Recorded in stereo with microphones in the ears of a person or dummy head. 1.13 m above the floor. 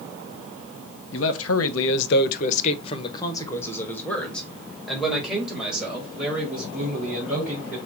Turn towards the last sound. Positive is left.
turn(degrees=-5)  # may be behind; listen again after turning